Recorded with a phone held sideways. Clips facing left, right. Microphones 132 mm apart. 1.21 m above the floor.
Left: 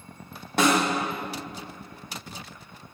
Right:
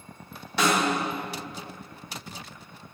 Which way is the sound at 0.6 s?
50° left (ahead or behind).